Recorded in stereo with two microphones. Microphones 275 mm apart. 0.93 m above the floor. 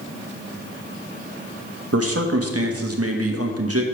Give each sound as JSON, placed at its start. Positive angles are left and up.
{"t": 1.9, "sound": "a man speaking", "side_deg": -60, "distance_m": 1.1}